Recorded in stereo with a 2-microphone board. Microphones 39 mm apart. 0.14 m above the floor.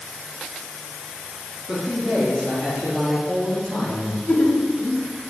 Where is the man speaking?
25° right (ahead or behind), 2.5 m; by 4.2 s 10° right (ahead or behind), 3.5 m.